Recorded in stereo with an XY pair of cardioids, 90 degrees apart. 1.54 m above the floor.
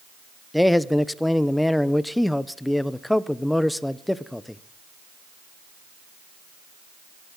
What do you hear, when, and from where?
0.5 s a man speaking: 10° left, 0.8 m